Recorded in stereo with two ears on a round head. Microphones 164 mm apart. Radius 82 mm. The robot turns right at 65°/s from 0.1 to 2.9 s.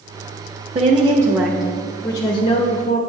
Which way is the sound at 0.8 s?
60° right.